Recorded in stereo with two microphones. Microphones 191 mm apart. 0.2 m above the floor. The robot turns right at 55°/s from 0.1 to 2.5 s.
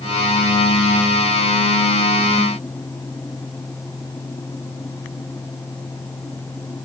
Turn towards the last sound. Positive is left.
No sound to turn to.